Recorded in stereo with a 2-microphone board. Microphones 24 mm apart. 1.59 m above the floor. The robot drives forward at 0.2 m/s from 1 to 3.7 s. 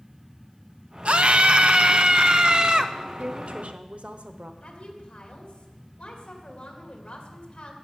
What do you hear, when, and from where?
1.1 s a scream: 55° right (ahead or behind), 0.7 m; by 2.9 s 40° right (ahead or behind), 1.0 m
3.2 s a woman speaking: 60° right (ahead or behind), 1.0 m; by 4.5 s 65° right (ahead or behind), 0.9 m
4.6 s a woman speaking: 40° left (ahead or behind), 2.5 m